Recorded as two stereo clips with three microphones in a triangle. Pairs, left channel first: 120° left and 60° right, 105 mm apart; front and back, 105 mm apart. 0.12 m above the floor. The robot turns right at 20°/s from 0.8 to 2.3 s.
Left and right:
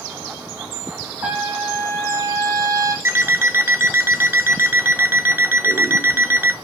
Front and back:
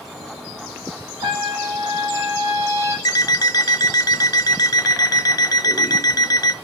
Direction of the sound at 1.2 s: 135° right.